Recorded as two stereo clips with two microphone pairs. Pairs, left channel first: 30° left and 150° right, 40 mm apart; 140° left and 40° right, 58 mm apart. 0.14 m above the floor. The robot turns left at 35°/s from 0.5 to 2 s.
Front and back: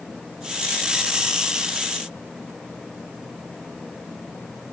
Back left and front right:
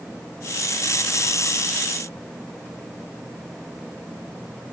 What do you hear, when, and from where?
Only background noise.